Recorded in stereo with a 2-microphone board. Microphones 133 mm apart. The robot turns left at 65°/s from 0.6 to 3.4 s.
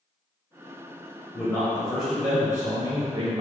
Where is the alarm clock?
I don't hear an alarm clock.